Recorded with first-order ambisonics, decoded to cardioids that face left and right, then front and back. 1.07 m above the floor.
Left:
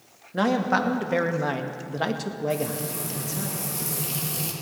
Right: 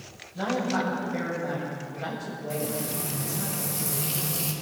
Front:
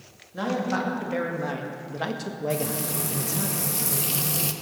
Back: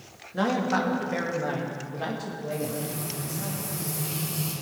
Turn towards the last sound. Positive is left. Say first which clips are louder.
# even, front 3 dB
turn(degrees=0)